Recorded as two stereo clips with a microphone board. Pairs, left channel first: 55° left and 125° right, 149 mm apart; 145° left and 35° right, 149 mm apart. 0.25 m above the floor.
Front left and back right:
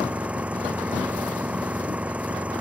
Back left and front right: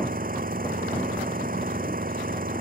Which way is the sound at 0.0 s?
45° right.